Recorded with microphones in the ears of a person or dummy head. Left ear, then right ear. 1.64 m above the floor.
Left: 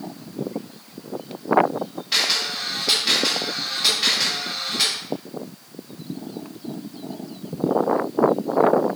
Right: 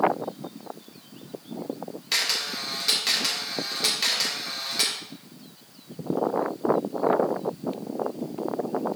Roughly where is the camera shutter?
Right.